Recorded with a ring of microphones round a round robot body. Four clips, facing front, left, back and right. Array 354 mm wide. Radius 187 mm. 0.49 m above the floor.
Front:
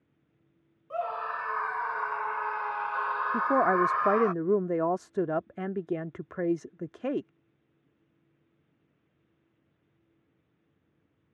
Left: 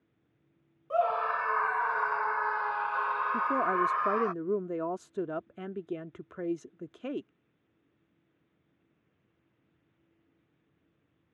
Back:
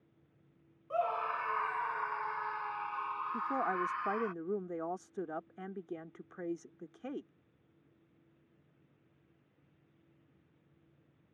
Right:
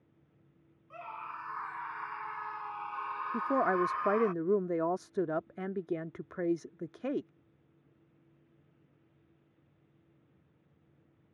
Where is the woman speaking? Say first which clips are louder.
Right 2 dB, front 11 dB; 10° right.